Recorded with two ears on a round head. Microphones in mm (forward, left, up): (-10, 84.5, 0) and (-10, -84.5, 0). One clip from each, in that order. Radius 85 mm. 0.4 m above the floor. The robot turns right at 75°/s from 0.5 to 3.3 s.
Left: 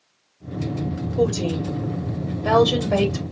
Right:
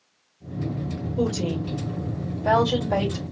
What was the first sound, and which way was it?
A woman speaking, 5° left (ahead or behind).